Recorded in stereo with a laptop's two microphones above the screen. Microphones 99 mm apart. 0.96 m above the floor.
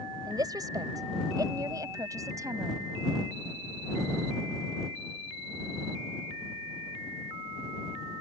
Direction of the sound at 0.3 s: 40° right (ahead or behind).